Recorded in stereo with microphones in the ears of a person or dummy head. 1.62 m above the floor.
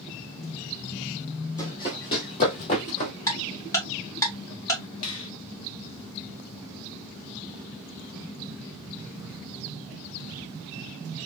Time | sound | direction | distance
1.6 | running footsteps | 20° left (ahead or behind) | 2.5 m
3.3 | ticking | 15° left (ahead or behind) | 2 m
5.0 | a finger snap | 25° left (ahead or behind) | 0.9 m